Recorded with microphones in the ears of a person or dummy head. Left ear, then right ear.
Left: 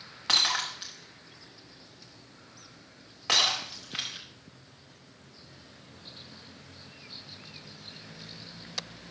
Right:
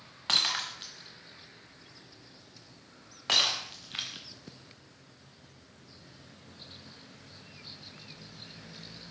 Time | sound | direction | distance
0.3 | breaking glass | centre (ahead or behind) | 1.2 m